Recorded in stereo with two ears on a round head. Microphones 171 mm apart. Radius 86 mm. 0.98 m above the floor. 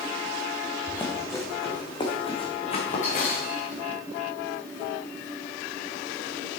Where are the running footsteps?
5° left (ahead or behind), 3 m; by 3.8 s 50° left (ahead or behind), 4.5 m.